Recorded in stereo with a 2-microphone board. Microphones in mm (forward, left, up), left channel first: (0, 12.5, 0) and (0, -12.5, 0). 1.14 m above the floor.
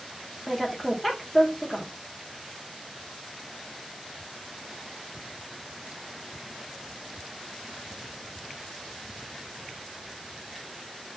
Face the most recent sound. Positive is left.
turn(degrees=0)  # may be behind; listen again after turning